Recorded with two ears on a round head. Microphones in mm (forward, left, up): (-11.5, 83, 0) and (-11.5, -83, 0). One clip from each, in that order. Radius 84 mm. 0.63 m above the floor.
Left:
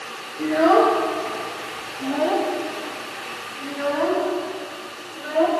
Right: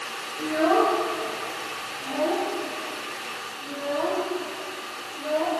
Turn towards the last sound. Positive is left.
turn(degrees=60)  # may be behind; listen again after turning